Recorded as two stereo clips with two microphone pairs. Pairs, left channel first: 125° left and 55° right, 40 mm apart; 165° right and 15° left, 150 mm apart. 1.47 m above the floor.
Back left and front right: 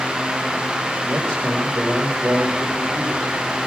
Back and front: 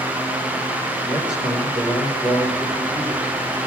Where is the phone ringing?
I don't hear a phone ringing.